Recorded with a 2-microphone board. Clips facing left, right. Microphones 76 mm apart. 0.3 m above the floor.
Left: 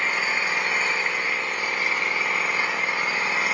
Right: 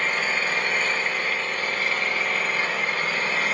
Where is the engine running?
15° left (ahead or behind), 1.3 m.